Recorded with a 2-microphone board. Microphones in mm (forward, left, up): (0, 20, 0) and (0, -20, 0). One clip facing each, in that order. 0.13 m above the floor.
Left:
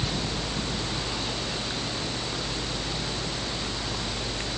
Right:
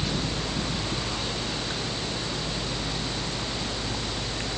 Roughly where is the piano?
I don't hear a piano.